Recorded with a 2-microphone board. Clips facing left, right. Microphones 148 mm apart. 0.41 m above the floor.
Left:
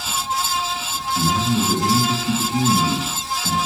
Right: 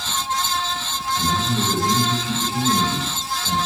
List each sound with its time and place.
1.1 s a man speaking: 70° left (ahead or behind), 2.5 m